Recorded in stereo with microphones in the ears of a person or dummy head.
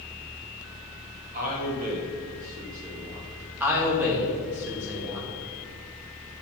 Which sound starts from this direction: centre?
A man speaking, at 3.6 s.